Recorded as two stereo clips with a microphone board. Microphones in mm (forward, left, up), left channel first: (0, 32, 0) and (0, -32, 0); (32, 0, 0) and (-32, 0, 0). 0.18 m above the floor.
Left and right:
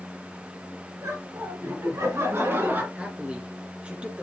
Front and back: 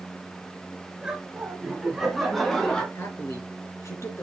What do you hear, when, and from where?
1.0 s laughter: 105° right, 3.5 m; by 2.9 s 65° right, 1.8 m
3.0 s a man speaking: 25° right, 2.5 m